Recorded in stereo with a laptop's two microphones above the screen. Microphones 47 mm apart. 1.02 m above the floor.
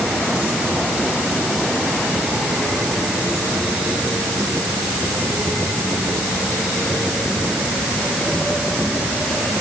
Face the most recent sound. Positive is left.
No sound to turn to.